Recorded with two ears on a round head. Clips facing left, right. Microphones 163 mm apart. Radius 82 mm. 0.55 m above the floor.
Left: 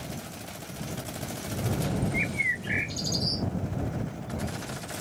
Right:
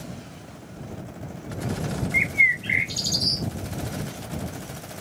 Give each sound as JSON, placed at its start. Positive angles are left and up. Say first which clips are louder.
{"t": 2.1, "sound": "a bird", "louder": "right 1 dB", "side_deg": -75}